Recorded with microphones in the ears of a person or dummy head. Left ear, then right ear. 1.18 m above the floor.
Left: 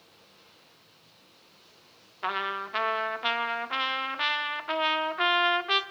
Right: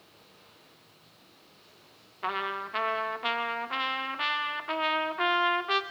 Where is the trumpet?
15° left (ahead or behind), 1.4 m.